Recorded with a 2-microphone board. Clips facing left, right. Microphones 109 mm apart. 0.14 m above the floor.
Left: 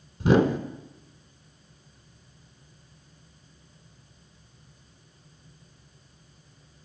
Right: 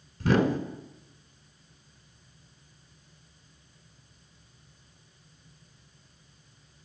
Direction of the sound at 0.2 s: 20° left (ahead or behind).